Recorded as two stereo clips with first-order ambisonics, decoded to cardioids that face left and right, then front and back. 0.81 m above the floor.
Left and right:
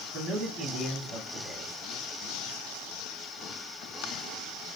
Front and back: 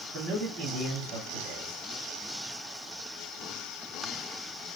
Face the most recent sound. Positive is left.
turn(degrees=-155)